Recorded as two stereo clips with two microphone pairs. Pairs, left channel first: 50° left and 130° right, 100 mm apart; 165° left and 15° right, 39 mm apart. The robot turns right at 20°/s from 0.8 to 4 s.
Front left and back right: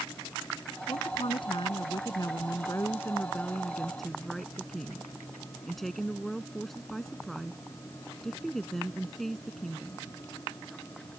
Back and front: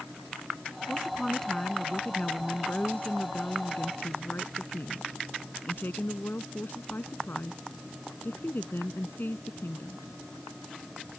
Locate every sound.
0.9 s a woman speaking: 75° left; by 10.0 s 140° left